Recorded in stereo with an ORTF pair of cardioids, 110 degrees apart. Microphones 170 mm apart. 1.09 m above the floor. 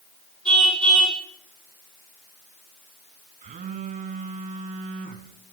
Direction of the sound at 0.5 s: 5° left.